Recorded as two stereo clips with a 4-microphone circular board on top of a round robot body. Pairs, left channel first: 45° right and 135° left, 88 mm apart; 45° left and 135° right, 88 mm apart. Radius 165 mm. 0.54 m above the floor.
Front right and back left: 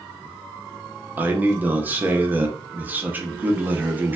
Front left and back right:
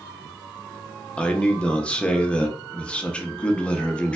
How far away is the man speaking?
About 0.8 m.